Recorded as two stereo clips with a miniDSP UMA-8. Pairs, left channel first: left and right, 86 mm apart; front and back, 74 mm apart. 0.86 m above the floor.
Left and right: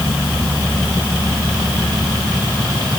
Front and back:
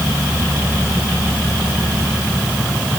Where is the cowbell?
I don't hear a cowbell.